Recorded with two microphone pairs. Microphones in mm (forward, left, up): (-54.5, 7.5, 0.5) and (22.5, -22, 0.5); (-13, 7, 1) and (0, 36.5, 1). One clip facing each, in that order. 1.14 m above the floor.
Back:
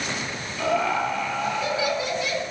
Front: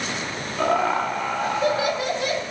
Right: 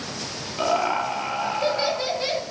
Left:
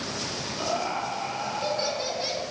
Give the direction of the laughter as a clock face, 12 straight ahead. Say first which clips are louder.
Front 2 dB, right 7 dB; 2 o'clock.